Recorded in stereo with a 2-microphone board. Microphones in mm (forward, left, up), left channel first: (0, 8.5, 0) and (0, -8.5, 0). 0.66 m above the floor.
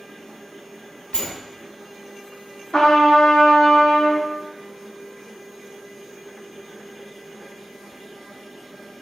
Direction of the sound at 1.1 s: 40° left (ahead or behind).